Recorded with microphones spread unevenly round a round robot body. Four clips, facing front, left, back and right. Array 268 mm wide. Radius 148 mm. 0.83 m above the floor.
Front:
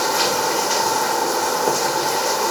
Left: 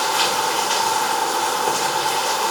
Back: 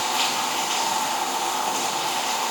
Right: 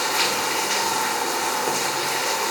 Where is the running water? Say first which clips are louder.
Left 4 dB, front 6 dB; 5° right, 2 m.